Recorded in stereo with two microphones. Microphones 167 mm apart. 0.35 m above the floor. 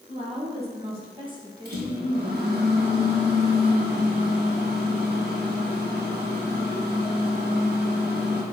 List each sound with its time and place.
0.1 s a woman speaking: 40° right (ahead or behind), 3 m; by 2.5 s 5° right (ahead or behind), 1.5 m
1.6 s a microwave: 65° right (ahead or behind), 2.5 m